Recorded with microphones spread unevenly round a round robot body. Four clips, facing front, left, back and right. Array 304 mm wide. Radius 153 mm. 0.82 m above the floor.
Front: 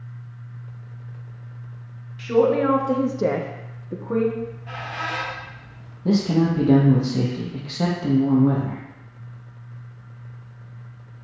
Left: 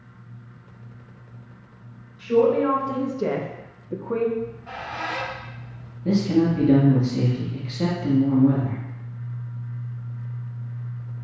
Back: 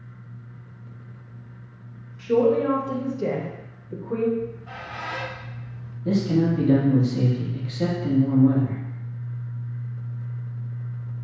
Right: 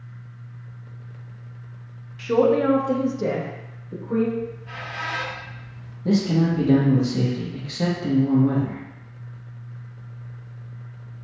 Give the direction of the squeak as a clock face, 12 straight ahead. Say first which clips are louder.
Even, even; 10 o'clock.